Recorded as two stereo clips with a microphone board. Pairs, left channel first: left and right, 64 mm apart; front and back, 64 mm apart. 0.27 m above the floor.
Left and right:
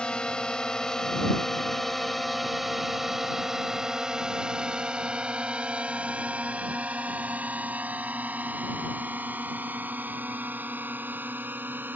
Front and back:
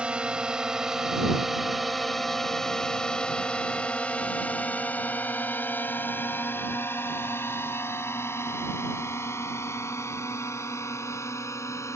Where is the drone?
140° left; by 12.0 s 35° right.